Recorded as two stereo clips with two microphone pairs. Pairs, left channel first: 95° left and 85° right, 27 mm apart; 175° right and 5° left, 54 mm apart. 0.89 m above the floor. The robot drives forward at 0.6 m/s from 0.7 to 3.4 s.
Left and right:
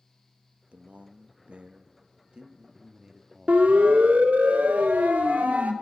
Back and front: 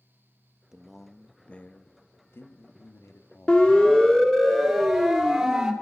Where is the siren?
105° right, 2.5 m; by 5.7 s 80° right, 3.5 m.